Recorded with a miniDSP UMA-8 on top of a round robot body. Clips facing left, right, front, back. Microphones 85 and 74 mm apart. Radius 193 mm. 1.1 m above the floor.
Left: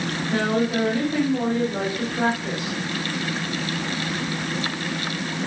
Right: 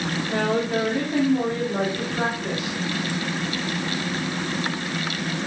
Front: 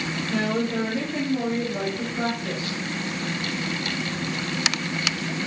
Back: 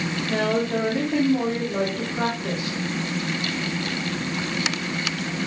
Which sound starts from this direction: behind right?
A woman speaking, at 0.3 s.